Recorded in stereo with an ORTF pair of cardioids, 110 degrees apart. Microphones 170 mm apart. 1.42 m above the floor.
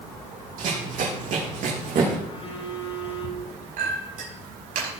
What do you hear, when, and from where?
0.6 s running footsteps: 60° right, 4.5 m; by 2.1 s 55° right, 6 m
2.2 s a phone buzzing: 40° left, 4 m
3.8 s a clink: 60° right, 5 m